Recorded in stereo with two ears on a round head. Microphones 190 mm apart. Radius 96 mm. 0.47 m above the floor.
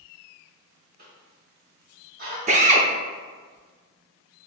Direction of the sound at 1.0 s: 40° right (ahead or behind).